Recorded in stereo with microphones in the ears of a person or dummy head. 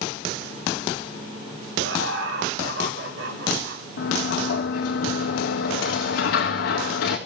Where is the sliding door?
65° left (ahead or behind), 3.5 m.